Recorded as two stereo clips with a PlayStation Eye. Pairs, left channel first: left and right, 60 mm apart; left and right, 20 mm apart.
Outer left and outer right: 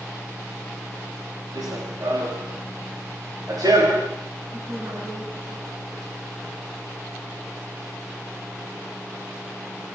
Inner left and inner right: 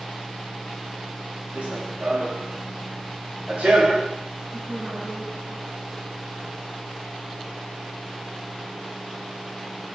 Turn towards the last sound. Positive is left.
turn(degrees=-75)  # may be behind; listen again after turning